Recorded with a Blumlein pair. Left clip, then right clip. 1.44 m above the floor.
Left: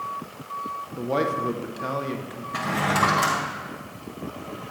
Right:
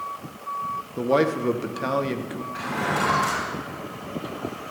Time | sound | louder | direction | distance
1.0 | a man speaking | right 3 dB | 15° right | 1.0 m
2.5 | a drawer | left 3 dB | 40° left | 5.5 m